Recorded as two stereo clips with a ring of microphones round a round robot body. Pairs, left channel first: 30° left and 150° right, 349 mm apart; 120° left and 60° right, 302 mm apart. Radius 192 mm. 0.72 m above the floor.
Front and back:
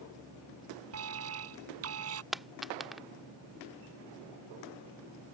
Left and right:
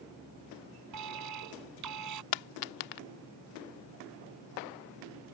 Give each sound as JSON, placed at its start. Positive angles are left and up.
{"t": 0.9, "sound": "an alarm", "azimuth_deg": -100}
{"t": 2.3, "sound": "a dropped coin", "azimuth_deg": 120}